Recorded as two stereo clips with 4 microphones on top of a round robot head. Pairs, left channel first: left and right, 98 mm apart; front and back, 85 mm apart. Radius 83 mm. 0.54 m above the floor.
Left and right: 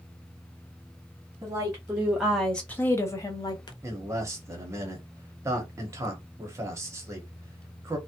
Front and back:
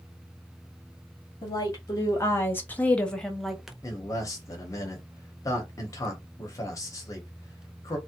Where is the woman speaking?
35° right, 1.1 m; by 3.7 s 95° left, 1.0 m.